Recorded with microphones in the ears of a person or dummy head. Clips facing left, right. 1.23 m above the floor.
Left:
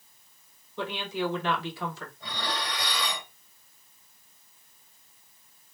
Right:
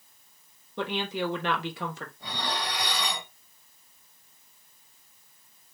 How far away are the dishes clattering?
About 2.5 m.